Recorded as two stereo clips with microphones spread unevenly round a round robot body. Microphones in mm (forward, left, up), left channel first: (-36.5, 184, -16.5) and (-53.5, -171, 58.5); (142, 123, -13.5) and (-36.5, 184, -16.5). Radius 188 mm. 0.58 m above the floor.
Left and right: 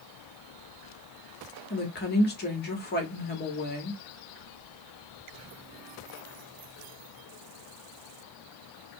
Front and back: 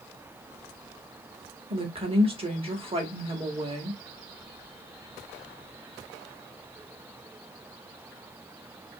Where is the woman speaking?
115° left, 1.3 m.